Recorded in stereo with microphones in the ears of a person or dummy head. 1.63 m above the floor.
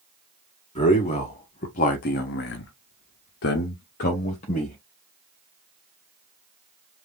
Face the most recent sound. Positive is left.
turn(degrees=30)  # may be behind; listen again after turning